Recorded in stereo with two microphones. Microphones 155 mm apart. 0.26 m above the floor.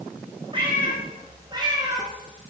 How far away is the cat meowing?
About 5 m.